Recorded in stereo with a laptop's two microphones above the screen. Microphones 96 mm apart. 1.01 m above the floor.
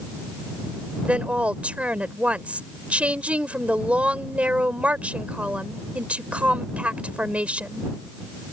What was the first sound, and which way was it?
A woman speaking, 15° right (ahead or behind).